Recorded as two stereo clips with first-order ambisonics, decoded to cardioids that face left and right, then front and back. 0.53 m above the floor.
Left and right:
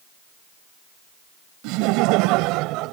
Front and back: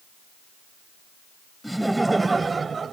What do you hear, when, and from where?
1.6 s laughter: 90° right; by 2.9 s 115° right